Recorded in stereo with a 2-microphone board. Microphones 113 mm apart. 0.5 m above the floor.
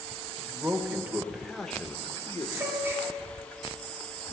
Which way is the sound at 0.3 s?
30° right (ahead or behind).